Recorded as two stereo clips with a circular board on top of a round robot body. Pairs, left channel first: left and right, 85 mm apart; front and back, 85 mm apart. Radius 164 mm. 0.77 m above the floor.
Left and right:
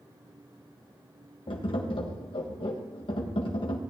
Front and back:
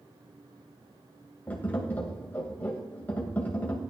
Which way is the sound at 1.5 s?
75° left.